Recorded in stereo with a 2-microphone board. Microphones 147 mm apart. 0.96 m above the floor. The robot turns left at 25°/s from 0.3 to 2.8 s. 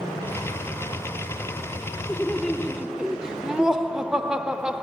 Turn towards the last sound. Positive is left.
turn(degrees=-5)  # may be behind; listen again after turning